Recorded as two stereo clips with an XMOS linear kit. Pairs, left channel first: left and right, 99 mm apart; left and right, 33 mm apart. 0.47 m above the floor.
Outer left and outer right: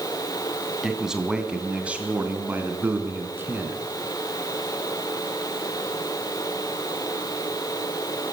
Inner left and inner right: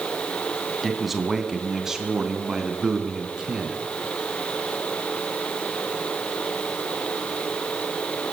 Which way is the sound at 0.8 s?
5° right (ahead or behind).